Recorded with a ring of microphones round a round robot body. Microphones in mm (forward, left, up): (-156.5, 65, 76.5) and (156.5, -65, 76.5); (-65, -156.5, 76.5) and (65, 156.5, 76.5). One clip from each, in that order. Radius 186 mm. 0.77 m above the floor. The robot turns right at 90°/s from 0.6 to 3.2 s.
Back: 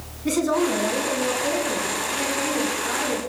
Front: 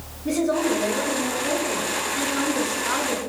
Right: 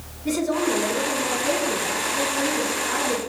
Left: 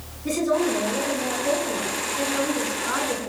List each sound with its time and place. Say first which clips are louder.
0.2 s a woman speaking: back 1 dB, left 1 dB; 155° left, 8.5 m; by 3.2 s 25° left, 8.5 m